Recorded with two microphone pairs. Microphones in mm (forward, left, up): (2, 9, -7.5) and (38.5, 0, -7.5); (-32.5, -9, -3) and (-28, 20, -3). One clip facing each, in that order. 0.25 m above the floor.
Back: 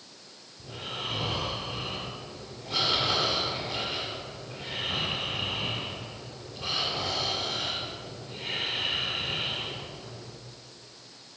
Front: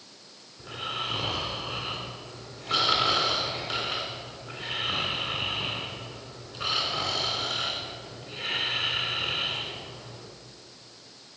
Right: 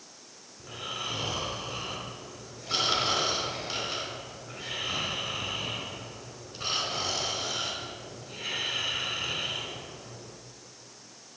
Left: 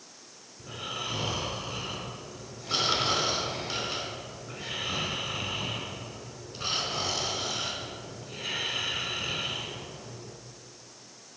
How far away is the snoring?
About 3 m.